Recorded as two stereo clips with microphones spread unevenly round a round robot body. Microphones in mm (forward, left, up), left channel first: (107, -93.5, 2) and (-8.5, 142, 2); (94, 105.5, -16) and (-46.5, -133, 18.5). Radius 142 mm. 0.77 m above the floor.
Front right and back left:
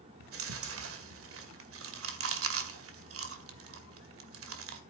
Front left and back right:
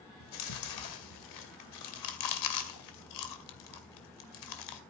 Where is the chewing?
80° left, 2 m.